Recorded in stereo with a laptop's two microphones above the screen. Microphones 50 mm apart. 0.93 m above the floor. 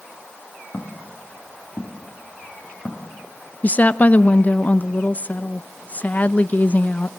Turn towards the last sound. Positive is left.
turn(degrees=35)  # may be behind; listen again after turning